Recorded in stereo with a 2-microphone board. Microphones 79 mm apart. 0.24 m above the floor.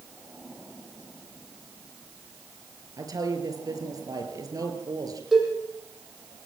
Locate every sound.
3.0 s a woman speaking: 60° right (ahead or behind), 5 m
5.3 s a cowbell: 5° right (ahead or behind), 8.5 m